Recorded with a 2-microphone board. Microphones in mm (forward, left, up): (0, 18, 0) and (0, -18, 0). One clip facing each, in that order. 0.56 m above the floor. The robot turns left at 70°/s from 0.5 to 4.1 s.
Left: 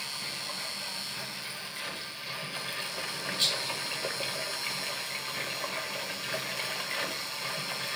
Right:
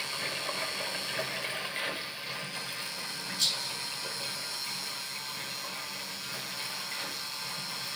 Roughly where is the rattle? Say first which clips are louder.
Left 2 dB; left.